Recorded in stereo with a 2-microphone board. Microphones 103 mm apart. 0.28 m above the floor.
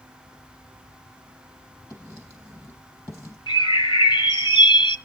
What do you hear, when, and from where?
1.9 s writing: 30° left (ahead or behind), 3.5 m
3.5 s a bird: 50° left (ahead or behind), 0.9 m